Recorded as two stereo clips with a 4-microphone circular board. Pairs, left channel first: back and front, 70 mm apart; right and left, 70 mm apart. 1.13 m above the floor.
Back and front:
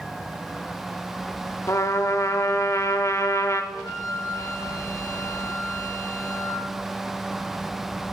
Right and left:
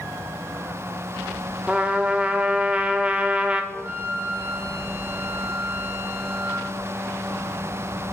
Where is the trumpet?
155° left, 0.8 m.